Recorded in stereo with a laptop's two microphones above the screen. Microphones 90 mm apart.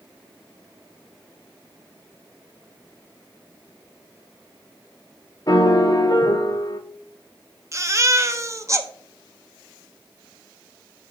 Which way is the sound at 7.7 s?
35° right (ahead or behind).